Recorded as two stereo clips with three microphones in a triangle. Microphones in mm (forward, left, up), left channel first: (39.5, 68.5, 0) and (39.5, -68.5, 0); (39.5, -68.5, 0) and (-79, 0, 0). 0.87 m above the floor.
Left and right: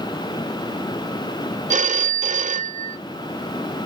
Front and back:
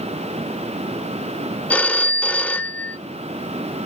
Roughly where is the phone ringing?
Right.